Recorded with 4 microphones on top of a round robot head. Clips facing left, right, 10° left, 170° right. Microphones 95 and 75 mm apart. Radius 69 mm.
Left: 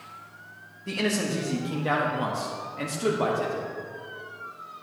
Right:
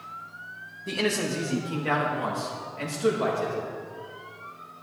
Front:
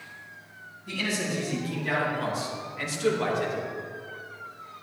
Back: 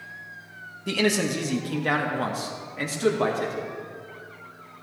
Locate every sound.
0.9 s a man speaking: 175° right, 1.8 m; by 3.7 s 140° left, 3.5 m